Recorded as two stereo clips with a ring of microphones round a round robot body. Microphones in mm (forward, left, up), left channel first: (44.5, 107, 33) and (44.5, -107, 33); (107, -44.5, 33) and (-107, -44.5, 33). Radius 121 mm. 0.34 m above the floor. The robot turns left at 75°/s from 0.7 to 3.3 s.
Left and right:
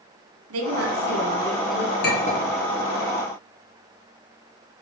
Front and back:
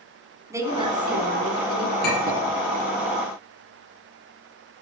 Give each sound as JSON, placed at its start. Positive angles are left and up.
{"t": 0.5, "sound": "a woman speaking", "azimuth_deg": -105, "distance_m": 2.5}
{"t": 2.0, "sound": "a clink", "azimuth_deg": 50, "distance_m": 6.0}